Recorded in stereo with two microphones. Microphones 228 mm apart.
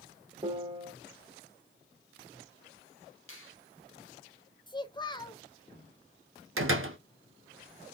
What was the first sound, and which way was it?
A piano, 25° right (ahead or behind).